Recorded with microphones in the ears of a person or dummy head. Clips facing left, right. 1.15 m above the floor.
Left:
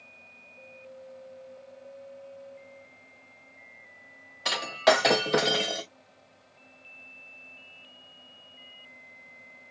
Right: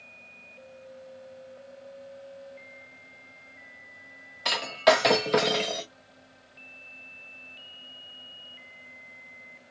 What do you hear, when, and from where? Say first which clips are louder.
4.5 s breaking glass: right 1 dB; centre (ahead or behind), 0.5 m